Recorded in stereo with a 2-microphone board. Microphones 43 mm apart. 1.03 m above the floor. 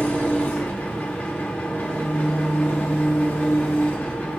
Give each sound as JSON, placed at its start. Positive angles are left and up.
{"t": 0.0, "sound": "an engine running", "side_deg": 35, "distance_m": 2.0}